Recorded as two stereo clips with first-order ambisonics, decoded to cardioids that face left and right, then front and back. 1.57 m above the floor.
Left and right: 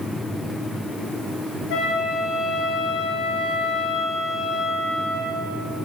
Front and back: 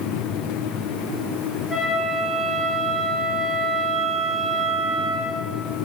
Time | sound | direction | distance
1.7 | a flute | 85° left | 3 m